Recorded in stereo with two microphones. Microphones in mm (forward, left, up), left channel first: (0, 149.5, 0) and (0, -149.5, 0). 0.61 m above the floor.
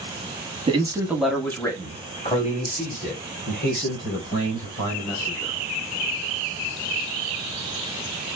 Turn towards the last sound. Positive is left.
turn(degrees=40)  # may be behind; listen again after turning